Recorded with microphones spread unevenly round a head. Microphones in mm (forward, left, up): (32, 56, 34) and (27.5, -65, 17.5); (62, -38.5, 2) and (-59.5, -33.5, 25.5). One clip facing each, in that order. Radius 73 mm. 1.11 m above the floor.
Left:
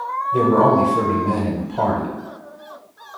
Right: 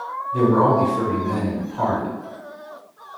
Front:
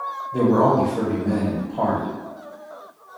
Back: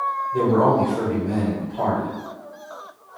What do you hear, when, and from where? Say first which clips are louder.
0.3 s a man speaking: left 2 dB, front 1 dB; 65° left, 0.9 m